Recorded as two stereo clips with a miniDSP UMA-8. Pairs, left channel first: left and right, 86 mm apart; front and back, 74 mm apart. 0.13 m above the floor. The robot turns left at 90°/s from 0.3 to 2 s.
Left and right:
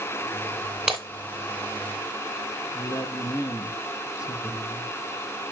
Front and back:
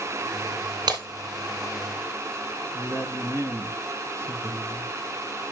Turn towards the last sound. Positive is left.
turn(degrees=135)